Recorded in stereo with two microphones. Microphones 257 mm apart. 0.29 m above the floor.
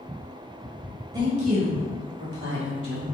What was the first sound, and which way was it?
A woman speaking, 15° right (ahead or behind).